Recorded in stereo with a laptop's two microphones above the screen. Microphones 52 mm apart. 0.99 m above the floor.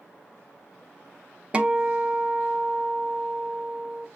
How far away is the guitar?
About 0.6 m.